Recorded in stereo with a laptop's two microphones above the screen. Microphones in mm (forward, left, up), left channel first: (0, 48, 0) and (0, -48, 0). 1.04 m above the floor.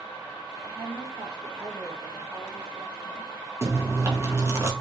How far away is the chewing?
About 1.0 m.